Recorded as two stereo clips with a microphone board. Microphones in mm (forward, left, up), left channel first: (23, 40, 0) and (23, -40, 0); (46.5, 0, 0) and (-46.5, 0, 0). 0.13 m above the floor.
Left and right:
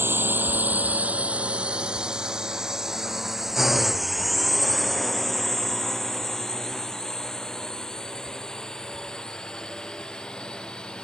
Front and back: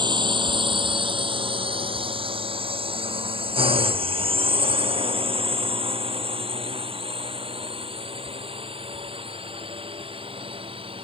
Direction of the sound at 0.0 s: 150° right.